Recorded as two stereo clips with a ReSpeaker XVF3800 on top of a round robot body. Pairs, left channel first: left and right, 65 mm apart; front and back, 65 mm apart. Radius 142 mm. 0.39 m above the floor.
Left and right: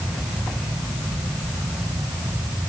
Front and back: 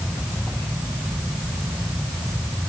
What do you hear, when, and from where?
Only background noise.